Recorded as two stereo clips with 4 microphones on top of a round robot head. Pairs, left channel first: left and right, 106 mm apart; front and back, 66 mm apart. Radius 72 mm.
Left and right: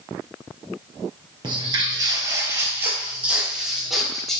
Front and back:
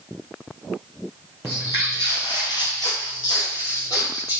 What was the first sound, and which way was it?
Footsteps, 55° right.